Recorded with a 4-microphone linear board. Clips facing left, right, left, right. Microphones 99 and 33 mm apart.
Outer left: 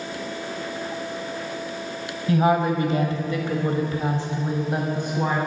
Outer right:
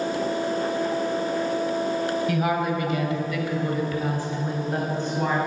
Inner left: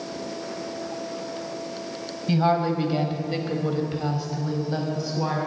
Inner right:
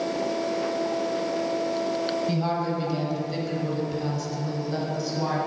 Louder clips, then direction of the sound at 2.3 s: Outer left 4 dB, inner left 4 dB; 30° left (ahead or behind).